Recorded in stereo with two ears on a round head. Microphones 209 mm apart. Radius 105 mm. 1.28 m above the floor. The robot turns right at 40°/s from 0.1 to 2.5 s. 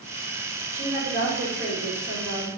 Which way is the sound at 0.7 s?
170° right.